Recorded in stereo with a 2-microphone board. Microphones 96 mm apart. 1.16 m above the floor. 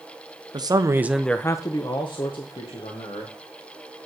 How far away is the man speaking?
About 0.8 m.